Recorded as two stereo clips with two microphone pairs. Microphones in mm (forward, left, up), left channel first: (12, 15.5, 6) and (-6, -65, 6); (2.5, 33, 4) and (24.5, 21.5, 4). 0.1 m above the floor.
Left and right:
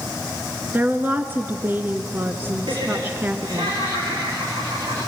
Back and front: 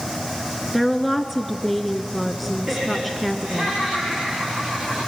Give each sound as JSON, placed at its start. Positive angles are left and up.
{"t": 0.7, "sound": "a woman speaking", "azimuth_deg": -125, "distance_m": 1.1}
{"t": 2.7, "sound": "laughter", "azimuth_deg": -80, "distance_m": 8.0}